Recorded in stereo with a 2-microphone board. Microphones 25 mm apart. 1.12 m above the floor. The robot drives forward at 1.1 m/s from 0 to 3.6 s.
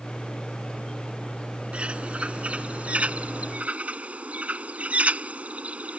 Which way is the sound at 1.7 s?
55° right (ahead or behind).